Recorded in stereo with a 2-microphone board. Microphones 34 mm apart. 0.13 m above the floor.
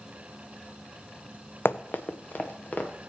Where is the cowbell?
No cowbell in this recording.